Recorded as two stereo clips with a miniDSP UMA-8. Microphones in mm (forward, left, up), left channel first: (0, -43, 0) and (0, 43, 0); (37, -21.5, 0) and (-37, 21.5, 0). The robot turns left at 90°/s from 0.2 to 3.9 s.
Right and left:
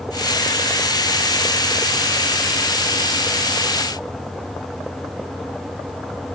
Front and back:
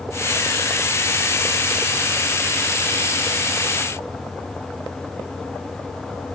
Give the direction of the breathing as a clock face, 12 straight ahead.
I don't hear breathing.